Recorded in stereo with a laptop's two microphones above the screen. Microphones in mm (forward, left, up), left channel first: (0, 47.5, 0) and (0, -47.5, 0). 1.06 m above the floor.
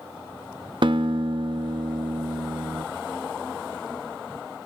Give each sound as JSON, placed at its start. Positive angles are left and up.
{"t": 0.8, "sound": "a guitar", "side_deg": -55, "distance_m": 0.7}